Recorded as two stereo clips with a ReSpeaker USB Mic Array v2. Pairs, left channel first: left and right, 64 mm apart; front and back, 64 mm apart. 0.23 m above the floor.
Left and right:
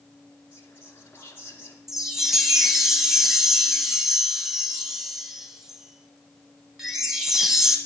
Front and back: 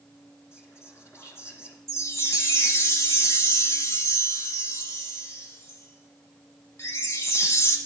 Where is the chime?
10° right, 1.4 m.